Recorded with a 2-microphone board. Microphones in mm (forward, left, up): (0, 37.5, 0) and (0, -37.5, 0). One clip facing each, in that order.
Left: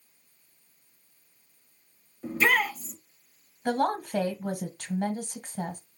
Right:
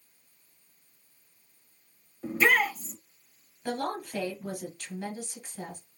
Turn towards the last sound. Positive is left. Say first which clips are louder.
# left 6 dB
turn(degrees=50)  # may be behind; listen again after turning